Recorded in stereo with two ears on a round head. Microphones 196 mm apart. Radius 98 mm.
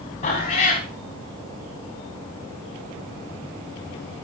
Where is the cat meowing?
30° left (ahead or behind), 4 m.